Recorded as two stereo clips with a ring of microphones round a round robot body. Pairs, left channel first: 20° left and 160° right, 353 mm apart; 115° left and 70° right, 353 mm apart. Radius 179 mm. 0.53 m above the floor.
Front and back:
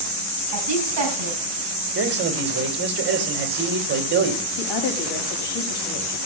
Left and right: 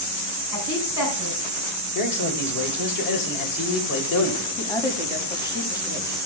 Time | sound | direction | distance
0.5 | a woman speaking | 155° left | 4.5 m
1.9 | a man speaking | 145° left | 3 m
4.6 | a woman speaking | 35° left | 4 m